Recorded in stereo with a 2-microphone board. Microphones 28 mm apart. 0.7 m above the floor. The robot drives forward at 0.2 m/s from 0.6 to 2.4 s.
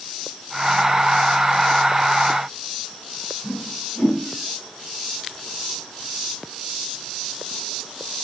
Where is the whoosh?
85° left, 2 m.